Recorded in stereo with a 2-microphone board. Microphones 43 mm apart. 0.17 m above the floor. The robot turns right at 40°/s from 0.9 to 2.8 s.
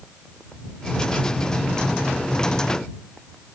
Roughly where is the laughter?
No laughter in this recording.